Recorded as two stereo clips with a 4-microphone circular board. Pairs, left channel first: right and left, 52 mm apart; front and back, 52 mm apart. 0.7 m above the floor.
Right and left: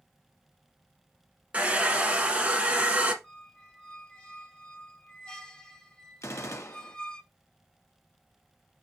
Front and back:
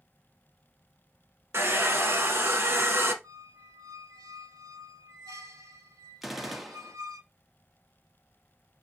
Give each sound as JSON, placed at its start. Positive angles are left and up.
{"t": 1.5, "sound": "a hair dryer", "azimuth_deg": 150, "distance_m": 1.0}
{"t": 3.2, "sound": "a squeak", "azimuth_deg": -165, "distance_m": 0.9}
{"t": 6.2, "sound": "a gunshot", "azimuth_deg": -95, "distance_m": 0.6}